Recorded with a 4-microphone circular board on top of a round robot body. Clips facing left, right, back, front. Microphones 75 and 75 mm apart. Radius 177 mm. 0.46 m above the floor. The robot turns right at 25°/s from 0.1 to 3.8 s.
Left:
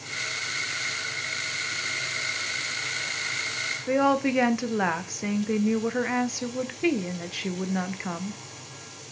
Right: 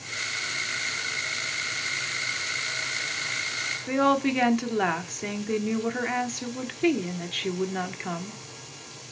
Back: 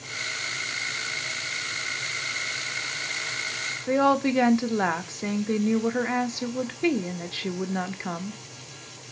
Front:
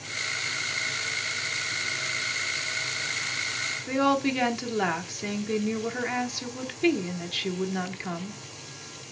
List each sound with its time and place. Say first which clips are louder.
3.9 s a woman speaking: even, back 3 dB; 160° left, 1.1 m